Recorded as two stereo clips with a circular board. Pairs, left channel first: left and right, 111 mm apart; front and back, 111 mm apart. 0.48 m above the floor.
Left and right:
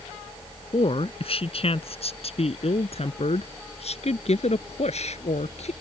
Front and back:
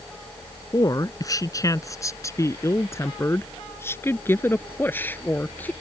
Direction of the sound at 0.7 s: 55° left.